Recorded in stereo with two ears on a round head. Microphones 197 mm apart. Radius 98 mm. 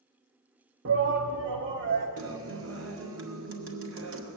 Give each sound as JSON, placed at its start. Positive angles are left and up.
{"t": 0.8, "sound": "a shout", "side_deg": -55, "distance_m": 0.7}
{"t": 2.2, "sound": "a guitar", "side_deg": -65, "distance_m": 1.9}